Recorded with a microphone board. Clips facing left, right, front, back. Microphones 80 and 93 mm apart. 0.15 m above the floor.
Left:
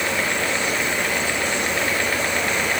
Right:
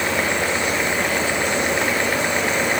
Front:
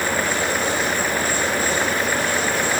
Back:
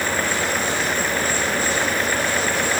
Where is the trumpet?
No trumpet in this recording.